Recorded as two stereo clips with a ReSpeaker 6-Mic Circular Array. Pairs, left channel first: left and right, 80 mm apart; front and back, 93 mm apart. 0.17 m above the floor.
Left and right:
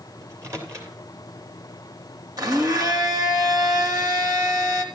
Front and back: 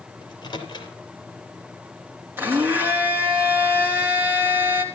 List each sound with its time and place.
0.2 s a microwave: 40° right, 3.5 m
2.4 s a blender: 115° right, 3 m